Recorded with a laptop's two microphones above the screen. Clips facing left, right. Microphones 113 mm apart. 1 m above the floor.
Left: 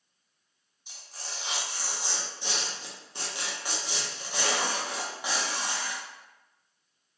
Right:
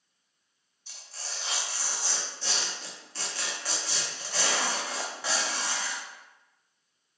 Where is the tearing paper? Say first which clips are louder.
Even; 15° left (ahead or behind), 0.5 m.